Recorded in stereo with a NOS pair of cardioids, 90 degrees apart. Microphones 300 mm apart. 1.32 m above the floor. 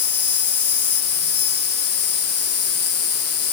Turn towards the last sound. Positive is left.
turn(degrees=50)